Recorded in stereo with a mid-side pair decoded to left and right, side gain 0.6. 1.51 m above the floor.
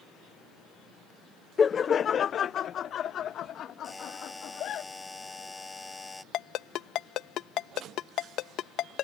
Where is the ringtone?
60° left.